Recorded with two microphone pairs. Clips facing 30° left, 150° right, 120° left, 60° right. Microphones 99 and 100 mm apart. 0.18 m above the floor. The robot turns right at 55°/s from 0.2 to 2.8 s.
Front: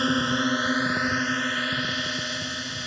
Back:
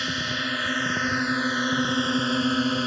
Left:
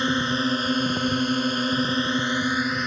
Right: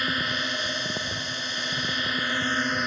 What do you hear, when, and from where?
0.0 s a drone: 70° left; by 2.9 s 150° right